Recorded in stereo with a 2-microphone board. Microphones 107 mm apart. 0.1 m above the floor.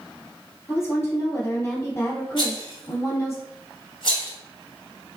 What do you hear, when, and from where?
0.7 s a woman speaking: 25° left (ahead or behind), 1.9 m
2.4 s a rattle: 45° left (ahead or behind), 1.6 m